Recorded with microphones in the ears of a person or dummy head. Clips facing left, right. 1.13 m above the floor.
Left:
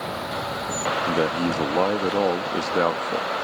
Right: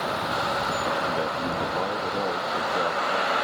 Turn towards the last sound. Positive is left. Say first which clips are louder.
# left 5 dB
turn(degrees=80)